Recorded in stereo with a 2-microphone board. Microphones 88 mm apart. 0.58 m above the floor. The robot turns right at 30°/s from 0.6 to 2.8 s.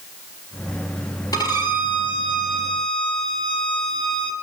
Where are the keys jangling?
I don't hear keys jangling.